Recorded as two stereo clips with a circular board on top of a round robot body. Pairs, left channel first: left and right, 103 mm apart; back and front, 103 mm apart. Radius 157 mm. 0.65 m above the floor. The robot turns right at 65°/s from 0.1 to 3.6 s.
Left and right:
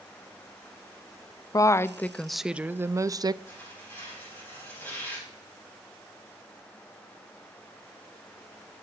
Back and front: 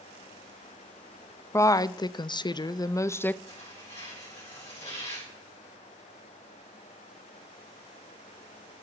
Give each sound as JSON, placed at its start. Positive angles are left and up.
{"t": 1.5, "sound": "a woman speaking", "azimuth_deg": 130, "distance_m": 0.6}
{"t": 3.5, "sound": "tearing paper", "azimuth_deg": 150, "distance_m": 6.5}